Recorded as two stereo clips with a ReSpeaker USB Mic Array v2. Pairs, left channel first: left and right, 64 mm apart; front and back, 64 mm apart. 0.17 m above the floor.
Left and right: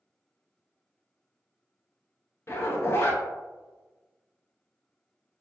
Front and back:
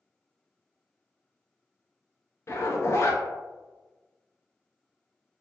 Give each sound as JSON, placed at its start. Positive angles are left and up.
{"t": 2.5, "sound": "a zipper", "azimuth_deg": 40, "distance_m": 0.5}